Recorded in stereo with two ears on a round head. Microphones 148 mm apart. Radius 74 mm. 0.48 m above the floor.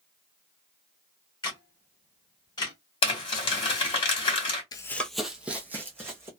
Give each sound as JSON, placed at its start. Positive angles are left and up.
{"t": 1.4, "sound": "a camera shutter", "side_deg": 30, "distance_m": 1.7}
{"t": 3.0, "sound": "crumpling", "side_deg": 35, "distance_m": 2.0}
{"t": 4.7, "sound": "running footsteps", "side_deg": 25, "distance_m": 0.5}